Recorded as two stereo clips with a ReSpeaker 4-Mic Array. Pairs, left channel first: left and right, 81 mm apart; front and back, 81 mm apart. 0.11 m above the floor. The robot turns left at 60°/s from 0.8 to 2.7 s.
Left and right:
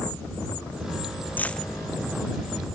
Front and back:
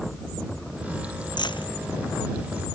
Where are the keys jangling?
20° left; by 1.7 s straight ahead.